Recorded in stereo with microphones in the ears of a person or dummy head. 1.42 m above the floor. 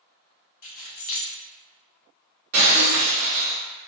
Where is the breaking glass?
45° right (ahead or behind), 1.4 m.